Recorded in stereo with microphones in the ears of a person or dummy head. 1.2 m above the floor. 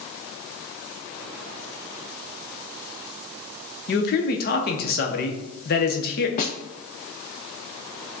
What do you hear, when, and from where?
3.9 s a man speaking: 50° left (ahead or behind), 0.9 m
6.4 s a snare drum: 30° left (ahead or behind), 0.5 m